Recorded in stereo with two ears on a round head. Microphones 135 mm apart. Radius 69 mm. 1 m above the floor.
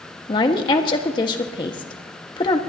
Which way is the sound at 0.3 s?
30° left (ahead or behind).